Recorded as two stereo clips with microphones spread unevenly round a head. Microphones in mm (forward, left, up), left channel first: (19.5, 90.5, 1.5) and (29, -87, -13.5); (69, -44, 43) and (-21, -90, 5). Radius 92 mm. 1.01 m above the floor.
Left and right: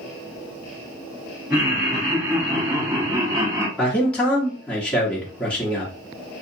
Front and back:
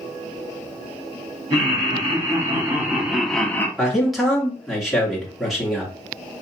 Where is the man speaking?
Straight behind, 0.9 m.